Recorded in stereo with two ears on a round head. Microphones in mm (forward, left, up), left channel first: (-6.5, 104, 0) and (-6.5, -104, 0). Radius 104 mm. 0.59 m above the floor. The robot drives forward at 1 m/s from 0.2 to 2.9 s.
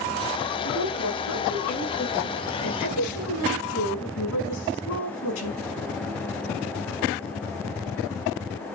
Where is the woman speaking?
55° left (ahead or behind), 6.5 m; by 5.6 s 70° left (ahead or behind), 6 m.